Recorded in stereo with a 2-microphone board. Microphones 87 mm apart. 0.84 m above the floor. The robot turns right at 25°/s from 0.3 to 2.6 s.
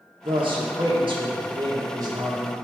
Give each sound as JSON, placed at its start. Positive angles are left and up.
{"t": 0.2, "sound": "a man speaking", "azimuth_deg": -95, "distance_m": 1.5}